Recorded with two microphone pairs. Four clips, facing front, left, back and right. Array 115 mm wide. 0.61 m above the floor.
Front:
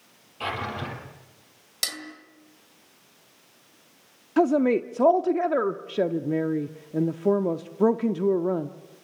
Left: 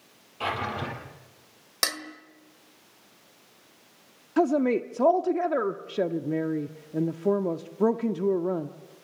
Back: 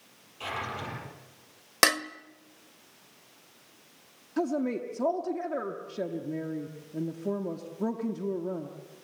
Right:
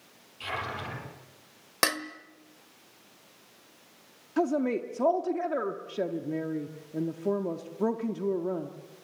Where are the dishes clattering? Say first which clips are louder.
Right 4 dB, back 13 dB; 165° right, 1.3 m.